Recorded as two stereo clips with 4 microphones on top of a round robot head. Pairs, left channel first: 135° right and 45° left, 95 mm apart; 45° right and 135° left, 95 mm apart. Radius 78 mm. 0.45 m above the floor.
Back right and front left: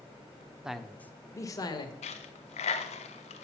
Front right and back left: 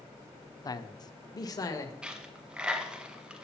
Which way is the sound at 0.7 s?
30° right.